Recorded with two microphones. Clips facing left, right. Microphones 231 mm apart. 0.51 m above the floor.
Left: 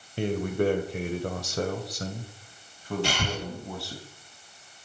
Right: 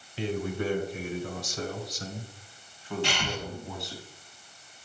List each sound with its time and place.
0.2 s a man speaking: 50° left (ahead or behind), 2 m; by 4.0 s 30° left (ahead or behind), 4 m
3.0 s breathing: 40° left (ahead or behind), 1.8 m